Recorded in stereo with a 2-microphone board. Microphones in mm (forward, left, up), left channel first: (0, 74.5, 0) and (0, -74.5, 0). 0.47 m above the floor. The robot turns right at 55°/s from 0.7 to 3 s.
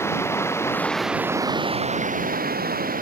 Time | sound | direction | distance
0.0 | running water | 165° left | ?